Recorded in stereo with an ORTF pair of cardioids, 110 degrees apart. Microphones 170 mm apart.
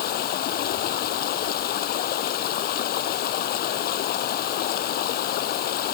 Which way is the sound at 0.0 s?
70° left.